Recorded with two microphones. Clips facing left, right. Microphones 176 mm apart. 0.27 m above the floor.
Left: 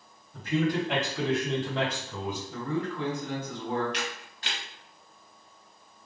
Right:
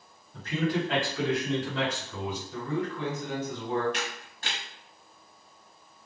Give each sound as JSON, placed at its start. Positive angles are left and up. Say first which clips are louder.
{"t": 0.3, "sound": "a man speaking", "louder": "left 2 dB", "side_deg": 10, "distance_m": 1.5}
{"t": 2.5, "sound": "a man speaking", "louder": "even", "side_deg": 35, "distance_m": 2.0}
{"t": 3.9, "sound": "a camera shutter", "louder": "even", "side_deg": -50, "distance_m": 0.8}